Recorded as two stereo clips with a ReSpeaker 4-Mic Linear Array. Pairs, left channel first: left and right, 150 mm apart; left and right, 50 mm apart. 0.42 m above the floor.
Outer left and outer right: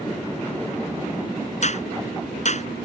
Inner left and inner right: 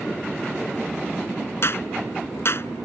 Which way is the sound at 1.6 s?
50° left (ahead or behind).